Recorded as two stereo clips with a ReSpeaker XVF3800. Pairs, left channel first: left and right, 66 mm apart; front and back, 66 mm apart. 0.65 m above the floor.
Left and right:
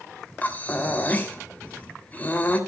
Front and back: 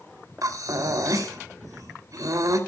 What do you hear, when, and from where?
0.4 s breathing: 155° left, 3 m